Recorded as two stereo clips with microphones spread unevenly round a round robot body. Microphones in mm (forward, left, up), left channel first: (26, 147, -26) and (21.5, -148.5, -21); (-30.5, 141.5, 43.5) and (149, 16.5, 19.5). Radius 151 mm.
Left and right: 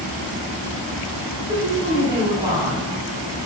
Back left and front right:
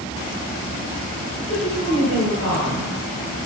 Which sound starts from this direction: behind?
A woman speaking, at 1.4 s.